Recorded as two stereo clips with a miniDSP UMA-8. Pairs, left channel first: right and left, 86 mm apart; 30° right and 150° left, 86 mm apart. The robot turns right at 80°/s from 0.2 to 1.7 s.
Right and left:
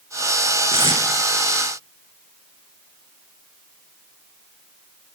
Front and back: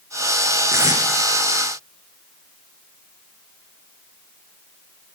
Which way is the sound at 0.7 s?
95° left.